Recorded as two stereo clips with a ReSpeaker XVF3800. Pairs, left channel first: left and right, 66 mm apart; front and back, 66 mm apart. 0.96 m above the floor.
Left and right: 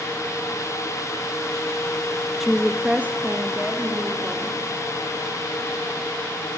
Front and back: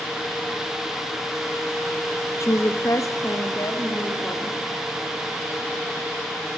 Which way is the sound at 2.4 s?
5° right.